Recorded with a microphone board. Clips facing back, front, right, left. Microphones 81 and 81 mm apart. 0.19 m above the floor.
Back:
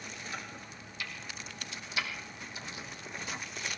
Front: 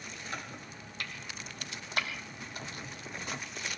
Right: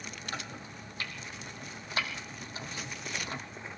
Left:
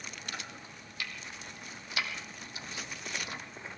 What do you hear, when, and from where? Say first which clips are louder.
0.3 s chopping: front 1 dB, right 3 dB; 35° right, 3 m